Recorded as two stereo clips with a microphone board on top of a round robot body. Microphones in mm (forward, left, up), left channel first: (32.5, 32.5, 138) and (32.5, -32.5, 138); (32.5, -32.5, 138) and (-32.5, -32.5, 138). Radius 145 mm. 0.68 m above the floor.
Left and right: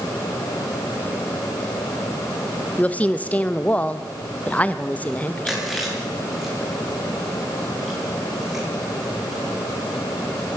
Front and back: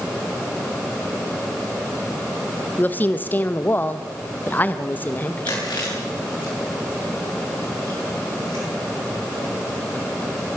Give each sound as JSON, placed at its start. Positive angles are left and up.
{"t": 2.8, "sound": "a woman speaking", "azimuth_deg": 40, "distance_m": 1.3}
{"t": 5.5, "sound": "chewing", "azimuth_deg": 0, "distance_m": 9.5}